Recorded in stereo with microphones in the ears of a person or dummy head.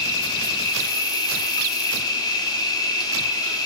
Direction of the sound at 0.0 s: 20° left (ahead or behind).